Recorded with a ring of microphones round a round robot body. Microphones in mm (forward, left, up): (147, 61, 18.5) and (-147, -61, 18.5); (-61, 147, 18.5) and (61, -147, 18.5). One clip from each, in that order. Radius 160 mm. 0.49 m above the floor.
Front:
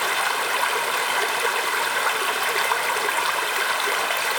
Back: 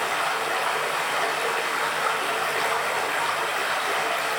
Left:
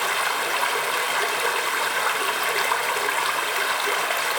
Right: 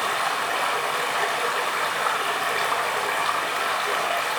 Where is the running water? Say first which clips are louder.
Front 2 dB, left 1 dB; 55° left, 0.9 m.